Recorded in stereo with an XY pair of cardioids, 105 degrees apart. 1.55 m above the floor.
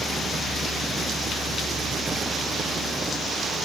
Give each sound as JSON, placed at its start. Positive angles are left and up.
{"t": 0.0, "sound": "a fan", "azimuth_deg": -35, "distance_m": 1.6}